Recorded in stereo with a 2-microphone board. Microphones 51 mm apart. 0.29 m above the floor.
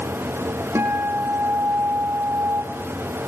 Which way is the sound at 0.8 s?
60° right (ahead or behind).